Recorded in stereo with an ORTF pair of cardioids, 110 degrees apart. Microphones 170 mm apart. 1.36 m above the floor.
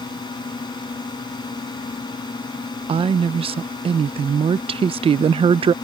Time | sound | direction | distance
0.0 | a drone | 25° left | ?
2.9 | a woman speaking | 30° right | ?